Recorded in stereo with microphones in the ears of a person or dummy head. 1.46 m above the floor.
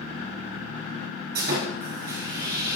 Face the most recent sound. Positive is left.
turn(degrees=-55)  # may be behind; listen again after turning